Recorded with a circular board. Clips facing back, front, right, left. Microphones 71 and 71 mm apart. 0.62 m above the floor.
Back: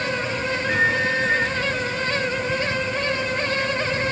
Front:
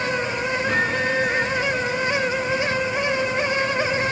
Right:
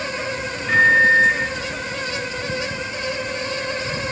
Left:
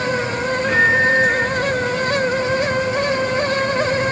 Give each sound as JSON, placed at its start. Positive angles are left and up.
{"t": 0.7, "sound": "a microwave", "azimuth_deg": 0, "distance_m": 5.5}